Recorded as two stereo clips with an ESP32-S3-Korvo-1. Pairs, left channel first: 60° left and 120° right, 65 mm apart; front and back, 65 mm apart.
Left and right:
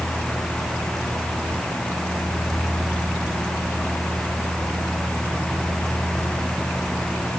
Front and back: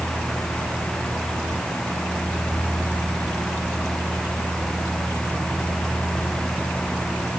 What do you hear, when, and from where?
Only background noise.